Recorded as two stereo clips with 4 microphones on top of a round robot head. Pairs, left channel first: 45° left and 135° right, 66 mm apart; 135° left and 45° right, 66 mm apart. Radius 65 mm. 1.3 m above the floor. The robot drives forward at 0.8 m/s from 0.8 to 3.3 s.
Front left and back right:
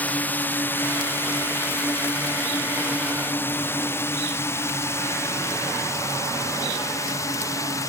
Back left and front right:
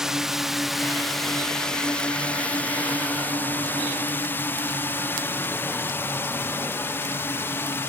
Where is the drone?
30° left; by 7.9 s 80° left.